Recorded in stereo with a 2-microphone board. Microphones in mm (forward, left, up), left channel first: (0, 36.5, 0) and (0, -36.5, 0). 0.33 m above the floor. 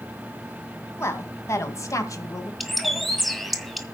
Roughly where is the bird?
Centre.